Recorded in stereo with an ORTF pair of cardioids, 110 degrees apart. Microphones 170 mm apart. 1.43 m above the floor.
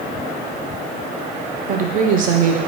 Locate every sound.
1.7 s a woman speaking: 50° right, 0.8 m